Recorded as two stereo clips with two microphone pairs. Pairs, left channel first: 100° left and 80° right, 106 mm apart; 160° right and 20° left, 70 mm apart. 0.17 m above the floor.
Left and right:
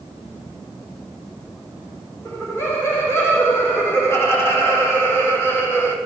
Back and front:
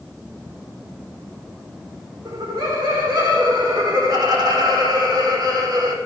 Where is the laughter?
35° left, 7.5 m; by 6.0 s 30° left, 6 m.